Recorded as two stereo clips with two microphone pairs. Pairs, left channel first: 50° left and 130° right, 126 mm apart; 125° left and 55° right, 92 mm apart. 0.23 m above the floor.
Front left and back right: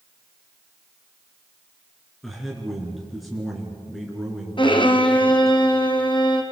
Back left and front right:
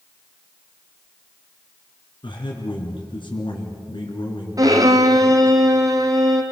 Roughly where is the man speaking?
Behind left.